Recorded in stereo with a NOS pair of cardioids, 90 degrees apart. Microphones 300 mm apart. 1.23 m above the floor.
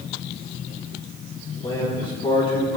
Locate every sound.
1.6 s a man speaking: 20° left, 6 m